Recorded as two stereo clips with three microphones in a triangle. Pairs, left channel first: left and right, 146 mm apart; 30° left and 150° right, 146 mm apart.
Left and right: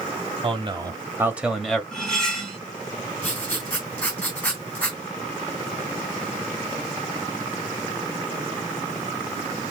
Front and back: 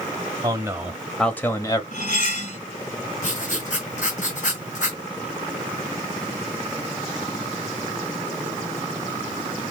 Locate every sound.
0.4 s a man speaking: 105° right, 1.3 m; by 1.8 s 10° left, 1.2 m
1.9 s cutlery clinking: 5° left, 1.7 m
3.2 s writing: 15° left, 3 m